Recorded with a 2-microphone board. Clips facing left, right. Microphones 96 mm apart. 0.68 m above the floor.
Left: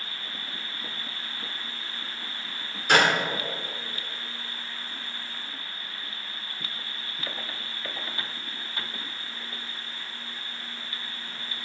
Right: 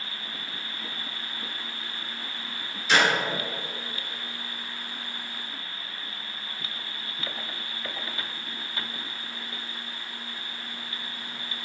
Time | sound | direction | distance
2.9 | a clap | 50° left (ahead or behind) | 1.6 m